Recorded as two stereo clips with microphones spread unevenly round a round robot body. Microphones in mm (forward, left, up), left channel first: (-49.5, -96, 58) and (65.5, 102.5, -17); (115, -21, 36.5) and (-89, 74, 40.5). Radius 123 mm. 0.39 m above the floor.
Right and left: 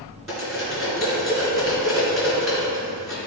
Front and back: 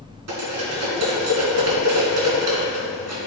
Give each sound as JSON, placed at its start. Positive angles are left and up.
{"t": 0.3, "sound": "cutlery clinking", "azimuth_deg": 145, "distance_m": 3.0}